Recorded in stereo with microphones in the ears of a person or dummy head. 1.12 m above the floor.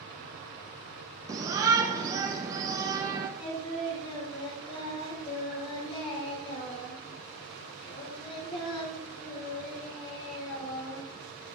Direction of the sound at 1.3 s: 15° right (ahead or behind).